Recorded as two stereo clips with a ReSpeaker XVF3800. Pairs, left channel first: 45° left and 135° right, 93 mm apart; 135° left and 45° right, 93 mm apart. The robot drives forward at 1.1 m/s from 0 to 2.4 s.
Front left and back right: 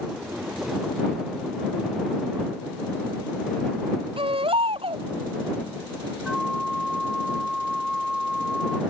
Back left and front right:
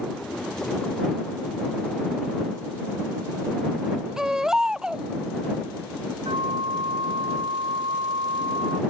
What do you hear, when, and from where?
4.2 s a baby crying: 125° right
6.2 s a flute: 45° right